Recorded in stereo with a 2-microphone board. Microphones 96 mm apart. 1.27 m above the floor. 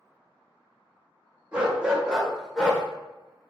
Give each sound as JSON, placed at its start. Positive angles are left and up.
{"t": 1.5, "sound": "a dog barking", "side_deg": -15, "distance_m": 1.2}